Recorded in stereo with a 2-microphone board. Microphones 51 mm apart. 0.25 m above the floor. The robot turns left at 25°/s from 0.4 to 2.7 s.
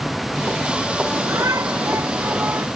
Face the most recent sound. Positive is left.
turn(degrees=-135)